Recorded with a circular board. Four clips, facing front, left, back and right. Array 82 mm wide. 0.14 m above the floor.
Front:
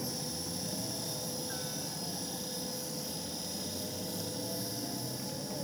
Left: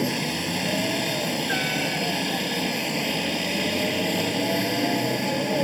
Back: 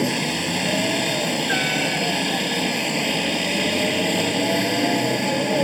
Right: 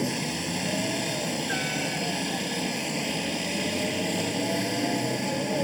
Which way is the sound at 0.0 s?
165° left.